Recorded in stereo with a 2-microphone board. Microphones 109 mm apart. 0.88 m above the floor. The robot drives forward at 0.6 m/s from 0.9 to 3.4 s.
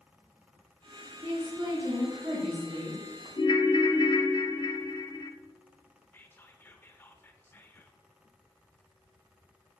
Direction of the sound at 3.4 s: 45° left (ahead or behind).